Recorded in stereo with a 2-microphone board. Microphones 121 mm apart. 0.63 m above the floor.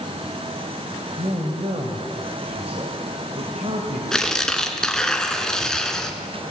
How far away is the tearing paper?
About 2 m.